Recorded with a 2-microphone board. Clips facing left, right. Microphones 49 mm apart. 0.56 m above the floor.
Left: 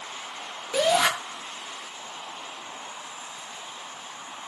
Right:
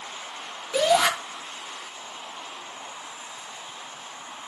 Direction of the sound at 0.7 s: Centre (ahead or behind).